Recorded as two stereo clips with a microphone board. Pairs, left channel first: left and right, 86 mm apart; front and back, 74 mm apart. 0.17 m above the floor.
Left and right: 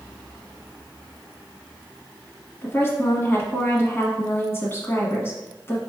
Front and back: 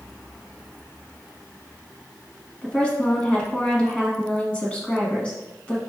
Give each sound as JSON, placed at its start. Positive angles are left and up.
{"t": 2.6, "sound": "a woman speaking", "azimuth_deg": 60, "distance_m": 1.2}